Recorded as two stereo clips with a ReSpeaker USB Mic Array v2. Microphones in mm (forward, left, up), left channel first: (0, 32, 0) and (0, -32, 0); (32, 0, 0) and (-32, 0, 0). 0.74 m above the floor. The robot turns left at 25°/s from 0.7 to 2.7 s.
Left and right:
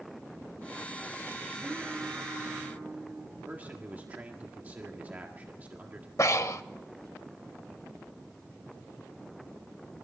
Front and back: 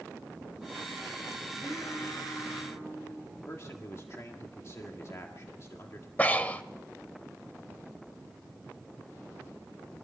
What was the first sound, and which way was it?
Singing, 5° right.